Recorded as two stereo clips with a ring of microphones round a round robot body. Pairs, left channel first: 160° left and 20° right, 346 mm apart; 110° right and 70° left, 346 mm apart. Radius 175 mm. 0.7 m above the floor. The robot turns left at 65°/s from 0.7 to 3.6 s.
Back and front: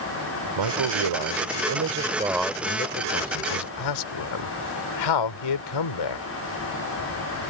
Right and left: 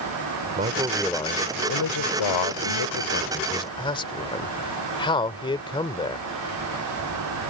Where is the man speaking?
Straight ahead; by 6.3 s 170° left.